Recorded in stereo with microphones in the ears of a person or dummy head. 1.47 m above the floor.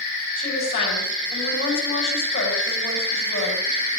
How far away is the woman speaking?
About 9 m.